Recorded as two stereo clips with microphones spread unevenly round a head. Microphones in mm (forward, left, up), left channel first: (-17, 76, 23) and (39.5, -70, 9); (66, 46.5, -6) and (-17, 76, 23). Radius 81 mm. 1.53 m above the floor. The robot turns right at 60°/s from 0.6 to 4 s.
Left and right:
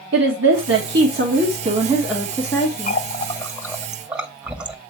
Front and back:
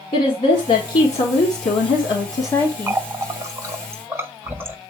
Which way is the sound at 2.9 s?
135° left.